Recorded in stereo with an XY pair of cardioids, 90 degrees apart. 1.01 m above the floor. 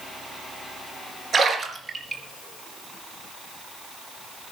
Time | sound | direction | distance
1.3 | a splash | 50° right | 4 m